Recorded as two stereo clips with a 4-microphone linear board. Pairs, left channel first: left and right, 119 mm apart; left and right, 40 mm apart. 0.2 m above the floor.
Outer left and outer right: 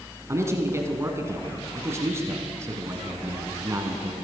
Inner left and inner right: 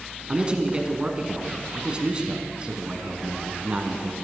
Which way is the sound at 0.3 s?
25° right (ahead or behind).